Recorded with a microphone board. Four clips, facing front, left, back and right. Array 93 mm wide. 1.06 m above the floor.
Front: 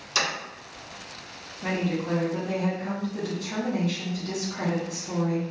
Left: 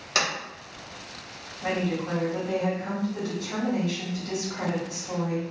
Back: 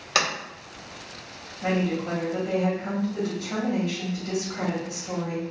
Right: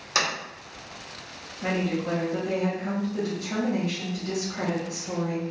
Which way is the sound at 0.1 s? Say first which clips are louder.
Right 1 dB, back 3 dB; 175° right.